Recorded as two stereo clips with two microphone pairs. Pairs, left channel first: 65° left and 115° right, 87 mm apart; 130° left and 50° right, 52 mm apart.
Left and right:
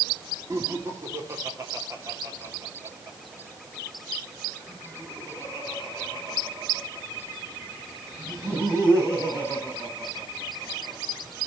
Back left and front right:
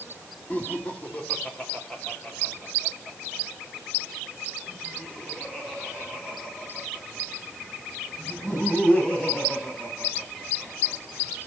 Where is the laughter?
170° right, 2.5 m.